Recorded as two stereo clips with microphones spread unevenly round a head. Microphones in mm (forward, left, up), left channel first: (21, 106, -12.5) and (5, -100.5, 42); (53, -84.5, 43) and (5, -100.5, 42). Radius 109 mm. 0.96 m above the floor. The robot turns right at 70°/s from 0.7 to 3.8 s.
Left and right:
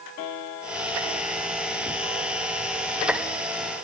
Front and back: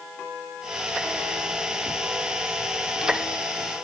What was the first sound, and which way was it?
Only background noise.